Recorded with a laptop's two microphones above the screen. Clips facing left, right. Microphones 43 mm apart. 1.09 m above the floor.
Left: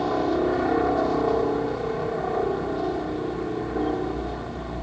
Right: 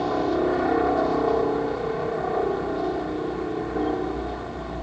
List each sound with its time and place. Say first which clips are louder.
0.0 s a helicopter: even; 5° right (ahead or behind)